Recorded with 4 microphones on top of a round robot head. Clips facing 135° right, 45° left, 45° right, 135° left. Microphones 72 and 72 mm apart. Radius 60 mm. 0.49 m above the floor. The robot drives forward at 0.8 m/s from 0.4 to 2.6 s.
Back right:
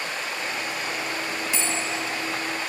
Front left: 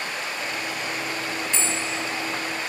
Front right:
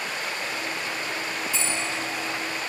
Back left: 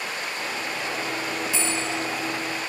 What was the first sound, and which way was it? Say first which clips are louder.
A bell: even, back left 2 dB; 140° left.